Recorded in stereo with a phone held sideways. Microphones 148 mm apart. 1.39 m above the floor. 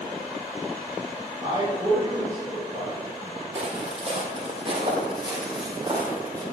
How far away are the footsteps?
About 2 m.